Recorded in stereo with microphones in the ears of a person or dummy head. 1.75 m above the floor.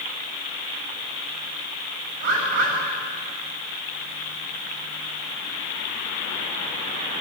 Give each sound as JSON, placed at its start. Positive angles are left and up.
{"t": 2.2, "sound": "a bird", "side_deg": -60, "distance_m": 8.0}